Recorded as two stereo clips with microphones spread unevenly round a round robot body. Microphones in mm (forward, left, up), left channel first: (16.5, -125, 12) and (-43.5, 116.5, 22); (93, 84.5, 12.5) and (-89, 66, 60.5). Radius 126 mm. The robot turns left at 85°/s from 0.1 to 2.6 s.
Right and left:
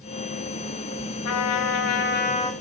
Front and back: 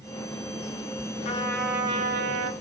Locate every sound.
1.2 s a trumpet: 45° right, 0.8 m; by 2.5 s 155° right, 0.8 m